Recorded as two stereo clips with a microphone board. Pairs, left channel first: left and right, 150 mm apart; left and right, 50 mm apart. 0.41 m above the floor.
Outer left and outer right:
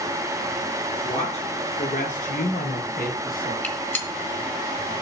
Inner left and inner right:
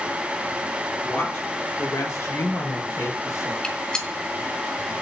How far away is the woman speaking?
About 5 m.